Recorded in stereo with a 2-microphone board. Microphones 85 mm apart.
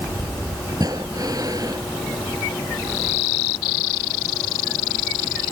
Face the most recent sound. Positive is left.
turn(degrees=-45)  # may be behind; listen again after turning